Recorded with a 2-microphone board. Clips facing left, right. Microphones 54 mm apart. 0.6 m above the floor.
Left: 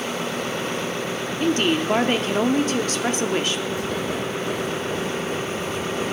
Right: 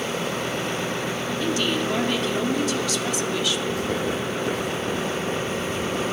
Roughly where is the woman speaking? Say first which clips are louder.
Left 5 dB; left.